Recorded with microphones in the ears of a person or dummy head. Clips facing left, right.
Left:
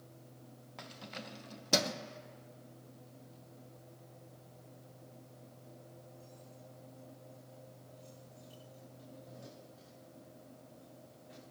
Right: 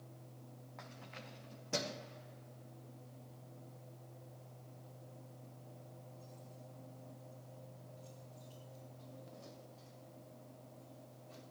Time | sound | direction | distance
0.8 | keys jangling | 50° left (ahead or behind) | 1.3 m